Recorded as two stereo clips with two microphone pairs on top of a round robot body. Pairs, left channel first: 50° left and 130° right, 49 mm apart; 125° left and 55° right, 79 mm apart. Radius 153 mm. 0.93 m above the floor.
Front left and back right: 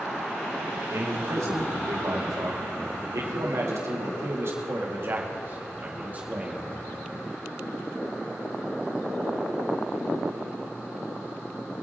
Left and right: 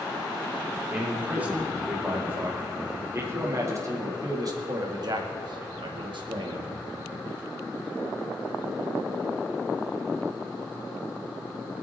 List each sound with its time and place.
0.9 s a man speaking: 130° right, 3.5 m; by 6.7 s 65° right, 2 m